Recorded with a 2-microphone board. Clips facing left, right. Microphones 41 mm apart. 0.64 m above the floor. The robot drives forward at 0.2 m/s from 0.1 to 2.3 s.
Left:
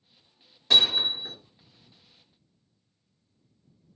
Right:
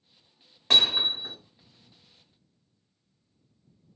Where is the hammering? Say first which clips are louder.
Even; 50° right (ahead or behind), 1.4 m.